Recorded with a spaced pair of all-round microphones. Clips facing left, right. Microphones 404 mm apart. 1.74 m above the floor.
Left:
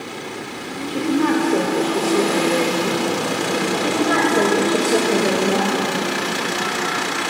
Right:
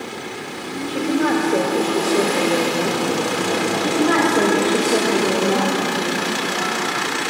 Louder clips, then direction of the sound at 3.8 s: Right 3 dB; 5° right (ahead or behind).